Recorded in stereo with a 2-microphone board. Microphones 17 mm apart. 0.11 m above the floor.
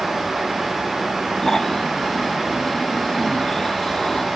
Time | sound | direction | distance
1.4 | snoring | 30° left (ahead or behind) | ?